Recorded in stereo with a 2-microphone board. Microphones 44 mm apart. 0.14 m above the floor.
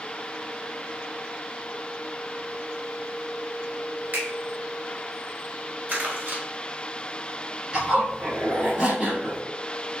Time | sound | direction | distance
4.1 | a finger snap | 50° right (ahead or behind) | 1.3 m
5.9 | crumpling | 50° right (ahead or behind) | 1.4 m
7.7 | a zipper | 20° right (ahead or behind) | 1.6 m